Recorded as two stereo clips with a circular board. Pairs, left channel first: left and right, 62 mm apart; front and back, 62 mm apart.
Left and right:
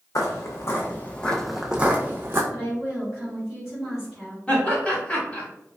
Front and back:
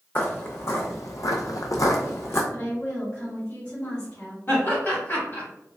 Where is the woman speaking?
10° right, 1.9 m.